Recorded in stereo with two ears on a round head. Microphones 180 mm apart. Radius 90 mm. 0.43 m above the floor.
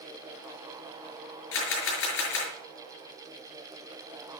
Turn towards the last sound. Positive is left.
turn(degrees=65)  # may be behind; listen again after turning